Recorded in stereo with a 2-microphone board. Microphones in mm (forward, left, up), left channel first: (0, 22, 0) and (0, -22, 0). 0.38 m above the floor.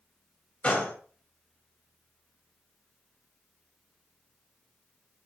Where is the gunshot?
30° left (ahead or behind), 2.5 m.